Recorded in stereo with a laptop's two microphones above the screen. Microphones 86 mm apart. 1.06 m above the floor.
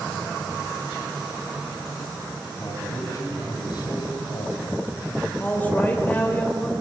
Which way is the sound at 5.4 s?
20° left (ahead or behind).